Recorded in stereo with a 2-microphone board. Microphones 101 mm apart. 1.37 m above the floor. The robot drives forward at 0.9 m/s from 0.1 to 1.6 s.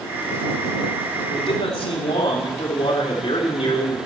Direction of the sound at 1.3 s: 80° left.